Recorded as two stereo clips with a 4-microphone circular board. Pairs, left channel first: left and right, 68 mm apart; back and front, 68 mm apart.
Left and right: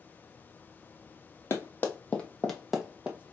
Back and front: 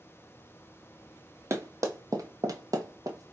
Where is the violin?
I don't hear a violin.